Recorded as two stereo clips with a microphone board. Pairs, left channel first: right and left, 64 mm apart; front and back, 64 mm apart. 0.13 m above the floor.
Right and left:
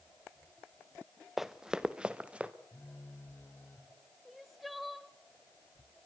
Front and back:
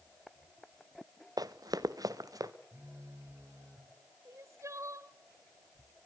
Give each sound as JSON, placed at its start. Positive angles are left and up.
{"t": 1.4, "sound": "running footsteps", "azimuth_deg": 175, "distance_m": 0.8}
{"t": 2.7, "sound": "a phone buzzing", "azimuth_deg": -140, "distance_m": 4.5}
{"t": 4.2, "sound": "crying", "azimuth_deg": 180, "distance_m": 0.8}